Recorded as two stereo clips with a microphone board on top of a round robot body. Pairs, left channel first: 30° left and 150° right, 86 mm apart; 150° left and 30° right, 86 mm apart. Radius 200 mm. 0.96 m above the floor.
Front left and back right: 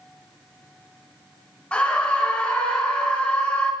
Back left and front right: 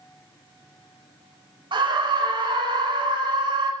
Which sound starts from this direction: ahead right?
A scream, at 1.7 s.